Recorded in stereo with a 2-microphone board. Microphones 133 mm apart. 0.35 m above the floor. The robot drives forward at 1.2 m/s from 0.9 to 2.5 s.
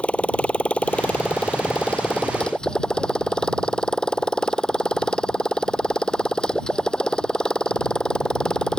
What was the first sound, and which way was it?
A motorcycle, 10° left (ahead or behind).